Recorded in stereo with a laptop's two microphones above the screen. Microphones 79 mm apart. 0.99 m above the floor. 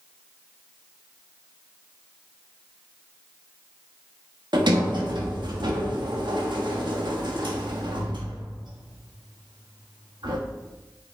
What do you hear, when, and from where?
4.5 s a sliding door: 75° right (ahead or behind), 1.5 m